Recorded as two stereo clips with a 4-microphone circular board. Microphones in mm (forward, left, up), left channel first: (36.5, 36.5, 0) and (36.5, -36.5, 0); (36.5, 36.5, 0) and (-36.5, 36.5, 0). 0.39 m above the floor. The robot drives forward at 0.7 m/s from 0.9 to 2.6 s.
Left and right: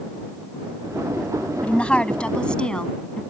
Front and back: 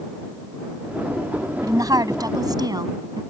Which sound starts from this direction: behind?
A woman speaking, at 1.6 s.